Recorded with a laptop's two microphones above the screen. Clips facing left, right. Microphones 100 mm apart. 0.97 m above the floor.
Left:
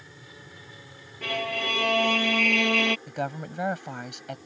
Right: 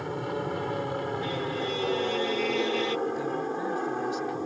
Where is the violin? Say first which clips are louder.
Right 1 dB; 70° left (ahead or behind).